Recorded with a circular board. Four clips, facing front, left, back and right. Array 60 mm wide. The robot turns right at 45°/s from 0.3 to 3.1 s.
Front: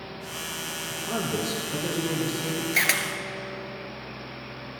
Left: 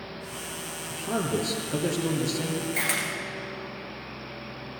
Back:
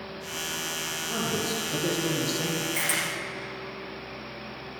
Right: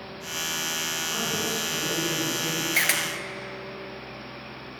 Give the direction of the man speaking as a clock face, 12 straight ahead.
10 o'clock.